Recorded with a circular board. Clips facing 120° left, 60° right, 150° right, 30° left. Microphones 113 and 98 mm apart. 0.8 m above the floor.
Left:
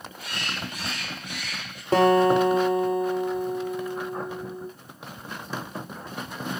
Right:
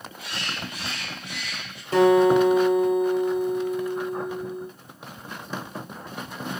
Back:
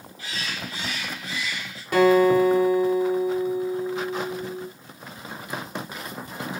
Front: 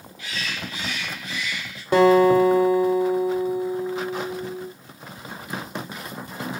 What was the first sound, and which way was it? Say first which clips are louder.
A bird: even, front 1 dB; 155° left.